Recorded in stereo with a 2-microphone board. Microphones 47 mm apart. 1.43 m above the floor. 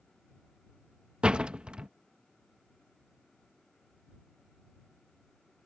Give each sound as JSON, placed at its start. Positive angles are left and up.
{"t": 1.2, "sound": "a door slam", "side_deg": -20}